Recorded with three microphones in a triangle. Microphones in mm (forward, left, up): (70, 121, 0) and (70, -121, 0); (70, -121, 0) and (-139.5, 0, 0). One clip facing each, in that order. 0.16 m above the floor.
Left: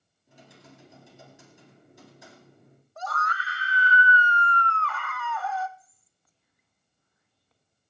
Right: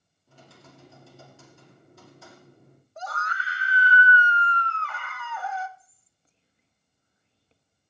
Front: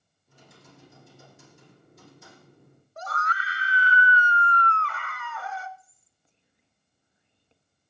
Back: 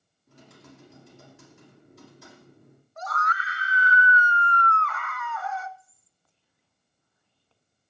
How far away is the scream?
About 1.5 m.